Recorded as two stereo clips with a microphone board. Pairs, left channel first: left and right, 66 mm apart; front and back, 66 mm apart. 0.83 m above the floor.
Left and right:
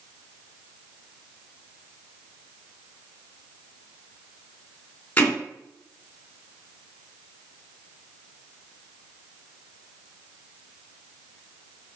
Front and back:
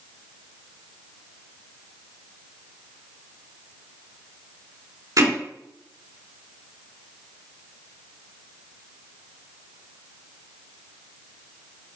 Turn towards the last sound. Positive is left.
turn(degrees=160)